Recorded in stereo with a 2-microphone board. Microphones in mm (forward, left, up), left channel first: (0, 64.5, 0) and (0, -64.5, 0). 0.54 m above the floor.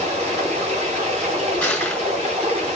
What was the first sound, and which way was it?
Running water, 50° right (ahead or behind).